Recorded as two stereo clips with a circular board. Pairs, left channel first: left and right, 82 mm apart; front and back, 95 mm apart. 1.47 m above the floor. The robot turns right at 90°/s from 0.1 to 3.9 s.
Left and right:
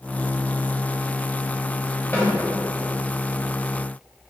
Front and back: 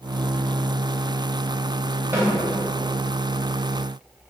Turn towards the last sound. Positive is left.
turn(degrees=-60)